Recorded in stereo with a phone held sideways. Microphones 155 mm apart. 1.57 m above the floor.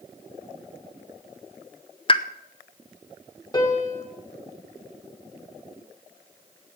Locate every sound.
2.1 s a pop: 35° left (ahead or behind), 0.6 m
3.5 s a piano: 25° left (ahead or behind), 2 m